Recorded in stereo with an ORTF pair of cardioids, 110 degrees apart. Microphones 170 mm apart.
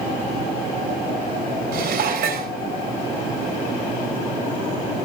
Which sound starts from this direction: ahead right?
Dishes clattering, at 1.7 s.